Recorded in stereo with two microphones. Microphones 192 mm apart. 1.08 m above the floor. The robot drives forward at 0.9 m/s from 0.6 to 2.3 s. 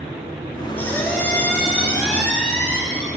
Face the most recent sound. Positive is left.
turn(degrees=5)  # may be behind; listen again after turning